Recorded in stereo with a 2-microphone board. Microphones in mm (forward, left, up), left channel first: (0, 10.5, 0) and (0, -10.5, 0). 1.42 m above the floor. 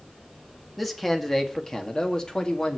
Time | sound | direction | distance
0.8 | a man speaking | 10° left (ahead or behind) | 2 m